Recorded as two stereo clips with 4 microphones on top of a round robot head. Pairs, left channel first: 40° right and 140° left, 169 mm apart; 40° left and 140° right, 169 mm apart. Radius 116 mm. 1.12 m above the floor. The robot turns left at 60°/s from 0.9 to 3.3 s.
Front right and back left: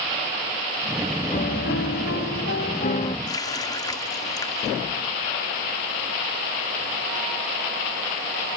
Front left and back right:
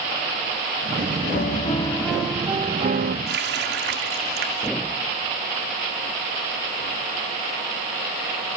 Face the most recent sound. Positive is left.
turn(degrees=-110)